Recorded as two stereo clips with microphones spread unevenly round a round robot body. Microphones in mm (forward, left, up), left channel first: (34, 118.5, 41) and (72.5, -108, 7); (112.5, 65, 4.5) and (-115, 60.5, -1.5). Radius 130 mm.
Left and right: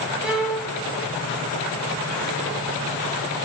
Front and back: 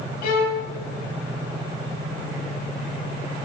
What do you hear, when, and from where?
0.2 s a violin: 10° left, 0.7 m